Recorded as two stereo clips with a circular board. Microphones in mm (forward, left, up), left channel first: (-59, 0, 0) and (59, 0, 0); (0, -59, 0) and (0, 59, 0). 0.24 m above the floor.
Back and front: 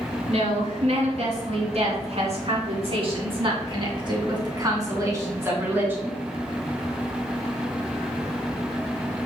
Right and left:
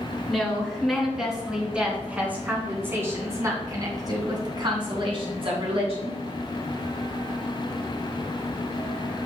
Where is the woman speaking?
Straight ahead, 3.5 m; by 6.2 s 75° left, 2.5 m.